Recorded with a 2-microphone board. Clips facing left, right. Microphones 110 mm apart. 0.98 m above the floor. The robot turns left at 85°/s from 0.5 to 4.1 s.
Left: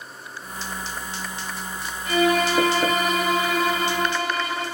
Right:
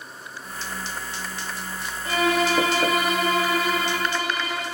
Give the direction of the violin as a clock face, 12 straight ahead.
3 o'clock.